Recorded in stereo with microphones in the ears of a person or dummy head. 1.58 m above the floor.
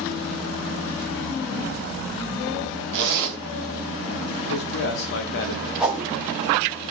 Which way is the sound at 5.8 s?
5° right (ahead or behind).